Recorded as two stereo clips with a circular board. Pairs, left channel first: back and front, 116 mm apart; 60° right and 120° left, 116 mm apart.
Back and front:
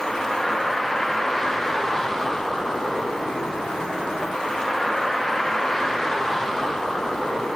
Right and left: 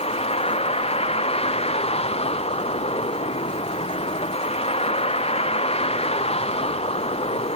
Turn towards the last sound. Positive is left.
turn(degrees=-90)